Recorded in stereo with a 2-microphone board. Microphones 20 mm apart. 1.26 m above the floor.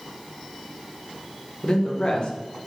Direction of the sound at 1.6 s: 45° left (ahead or behind).